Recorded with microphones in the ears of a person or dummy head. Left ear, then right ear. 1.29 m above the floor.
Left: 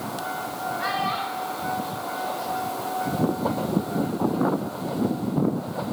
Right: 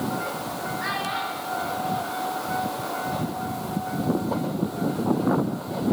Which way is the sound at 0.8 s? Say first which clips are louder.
Left 2 dB; 85° left.